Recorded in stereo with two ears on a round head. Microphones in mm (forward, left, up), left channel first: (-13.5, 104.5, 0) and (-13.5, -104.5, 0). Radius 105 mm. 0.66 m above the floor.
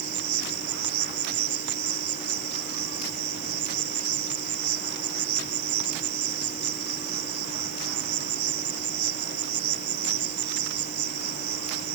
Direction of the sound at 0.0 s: 45° right (ahead or behind).